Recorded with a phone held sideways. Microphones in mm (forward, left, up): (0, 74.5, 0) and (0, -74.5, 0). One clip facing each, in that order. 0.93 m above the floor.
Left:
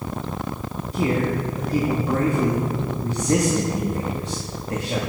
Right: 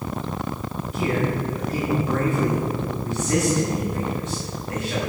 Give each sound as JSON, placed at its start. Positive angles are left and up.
{"t": 0.9, "sound": "a man speaking", "side_deg": 30, "distance_m": 1.5}